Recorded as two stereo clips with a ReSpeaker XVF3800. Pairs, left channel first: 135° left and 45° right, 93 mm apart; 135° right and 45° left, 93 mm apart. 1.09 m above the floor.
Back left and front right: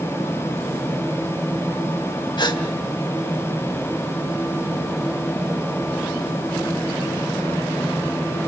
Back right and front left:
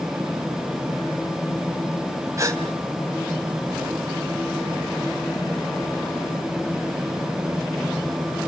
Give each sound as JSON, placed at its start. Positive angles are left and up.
{"t": 2.4, "sound": "a gasp", "azimuth_deg": 100, "distance_m": 3.0}